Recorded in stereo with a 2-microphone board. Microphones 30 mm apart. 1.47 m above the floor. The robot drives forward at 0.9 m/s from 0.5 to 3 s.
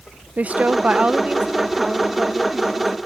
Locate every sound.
0.4 s a woman speaking: 50° right (ahead or behind); by 3.0 s 10° right (ahead or behind)